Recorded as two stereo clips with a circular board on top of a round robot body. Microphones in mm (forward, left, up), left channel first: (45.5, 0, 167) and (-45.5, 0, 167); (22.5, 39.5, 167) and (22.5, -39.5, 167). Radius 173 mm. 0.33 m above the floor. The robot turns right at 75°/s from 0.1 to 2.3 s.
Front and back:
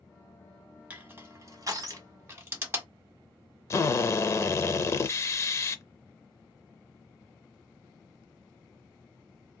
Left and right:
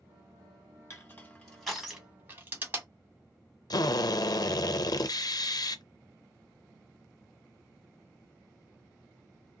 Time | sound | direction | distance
0.9 | crushing | 120° left | 1.7 m
3.7 | a drill | 55° left | 0.6 m